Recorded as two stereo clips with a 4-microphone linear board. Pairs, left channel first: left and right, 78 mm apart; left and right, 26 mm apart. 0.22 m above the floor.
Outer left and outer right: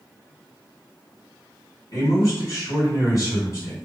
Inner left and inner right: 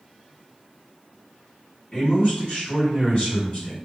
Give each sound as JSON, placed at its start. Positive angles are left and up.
{"t": 1.9, "sound": "a man speaking", "side_deg": 45, "distance_m": 1.9}